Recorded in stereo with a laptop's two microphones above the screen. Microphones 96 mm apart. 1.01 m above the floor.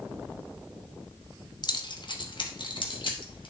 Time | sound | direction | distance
1.6 | keys jangling | 50° left (ahead or behind) | 0.8 m